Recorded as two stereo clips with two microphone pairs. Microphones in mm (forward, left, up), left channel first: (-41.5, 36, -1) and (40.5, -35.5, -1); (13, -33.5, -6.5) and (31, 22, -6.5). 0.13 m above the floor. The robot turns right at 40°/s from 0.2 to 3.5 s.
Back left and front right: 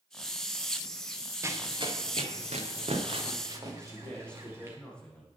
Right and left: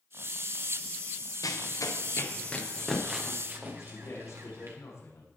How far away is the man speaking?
About 6.5 m.